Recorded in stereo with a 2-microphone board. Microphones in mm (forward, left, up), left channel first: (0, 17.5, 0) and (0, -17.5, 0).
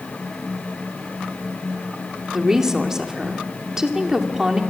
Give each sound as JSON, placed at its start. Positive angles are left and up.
{"t": 2.3, "sound": "a woman speaking", "side_deg": -15, "distance_m": 2.5}